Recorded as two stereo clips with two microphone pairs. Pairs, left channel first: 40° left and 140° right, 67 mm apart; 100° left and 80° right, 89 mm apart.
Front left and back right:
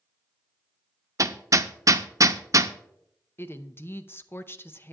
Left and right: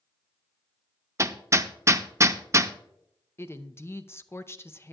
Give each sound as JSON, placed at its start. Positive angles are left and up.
{"t": 1.2, "sound": "hammering", "azimuth_deg": -130, "distance_m": 0.6}
{"t": 3.4, "sound": "a woman speaking", "azimuth_deg": 70, "distance_m": 0.6}